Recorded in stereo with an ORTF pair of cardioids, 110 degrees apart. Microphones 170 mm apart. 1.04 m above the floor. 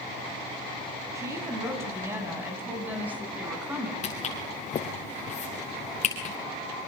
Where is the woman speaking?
15° right, 7.5 m; by 3.9 s 5° right, 9 m.